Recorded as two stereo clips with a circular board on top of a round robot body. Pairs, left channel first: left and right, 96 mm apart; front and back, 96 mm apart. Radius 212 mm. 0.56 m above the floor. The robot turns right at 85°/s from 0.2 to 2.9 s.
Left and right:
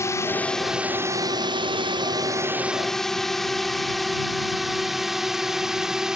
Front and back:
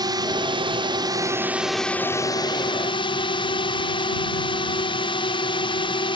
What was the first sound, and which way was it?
A drone, 145° left.